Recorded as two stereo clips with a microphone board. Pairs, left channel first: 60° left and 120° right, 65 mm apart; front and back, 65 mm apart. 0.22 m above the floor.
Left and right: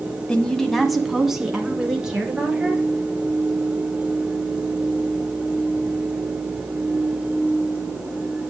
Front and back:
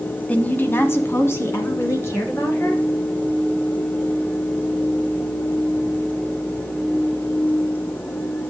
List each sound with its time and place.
0.3 s a woman speaking: 10° left, 1.0 m; by 2.9 s 45° right, 3 m